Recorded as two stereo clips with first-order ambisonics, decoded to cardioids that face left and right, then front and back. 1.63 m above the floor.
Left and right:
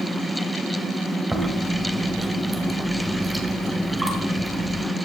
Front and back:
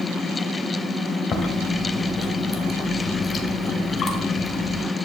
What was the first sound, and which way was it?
Chewing, 25° right.